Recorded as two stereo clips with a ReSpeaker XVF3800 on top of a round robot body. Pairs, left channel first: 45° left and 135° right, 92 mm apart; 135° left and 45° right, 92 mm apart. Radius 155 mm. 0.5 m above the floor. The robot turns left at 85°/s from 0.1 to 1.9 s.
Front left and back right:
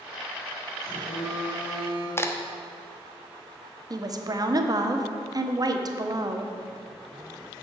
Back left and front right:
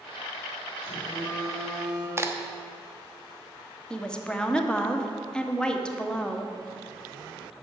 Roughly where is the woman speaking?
Behind right.